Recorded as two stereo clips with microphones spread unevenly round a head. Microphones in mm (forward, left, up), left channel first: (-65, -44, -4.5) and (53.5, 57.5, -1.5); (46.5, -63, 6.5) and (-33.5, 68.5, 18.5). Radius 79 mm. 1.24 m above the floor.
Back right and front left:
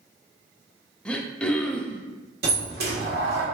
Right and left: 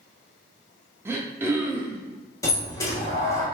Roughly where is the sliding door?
Ahead.